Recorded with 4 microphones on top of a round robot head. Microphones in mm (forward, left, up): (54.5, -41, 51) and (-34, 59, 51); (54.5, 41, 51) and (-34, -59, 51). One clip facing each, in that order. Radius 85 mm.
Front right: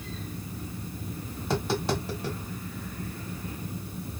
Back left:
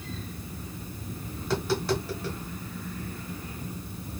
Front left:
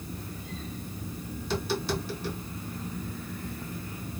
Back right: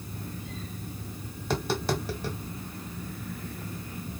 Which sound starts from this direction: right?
Tapping, at 1.4 s.